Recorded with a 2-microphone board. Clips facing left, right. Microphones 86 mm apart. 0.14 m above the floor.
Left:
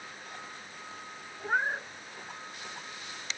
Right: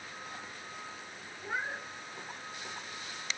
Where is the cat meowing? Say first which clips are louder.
Left 7 dB; 45° left (ahead or behind), 0.6 m.